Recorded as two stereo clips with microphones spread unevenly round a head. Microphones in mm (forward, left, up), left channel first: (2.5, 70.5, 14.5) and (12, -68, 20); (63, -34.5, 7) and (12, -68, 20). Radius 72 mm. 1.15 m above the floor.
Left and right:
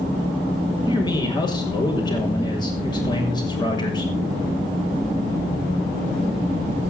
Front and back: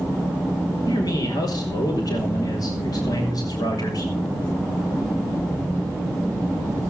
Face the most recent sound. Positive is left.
turn(degrees=35)